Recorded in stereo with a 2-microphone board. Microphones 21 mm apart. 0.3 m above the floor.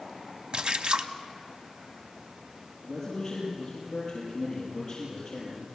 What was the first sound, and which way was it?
A splash, 50° right (ahead or behind).